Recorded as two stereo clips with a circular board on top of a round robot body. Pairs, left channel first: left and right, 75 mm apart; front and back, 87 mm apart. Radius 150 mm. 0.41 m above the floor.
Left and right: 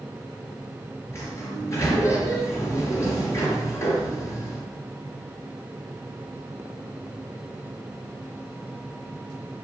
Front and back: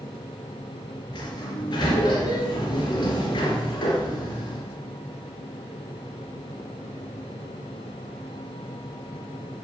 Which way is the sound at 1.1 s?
40° left.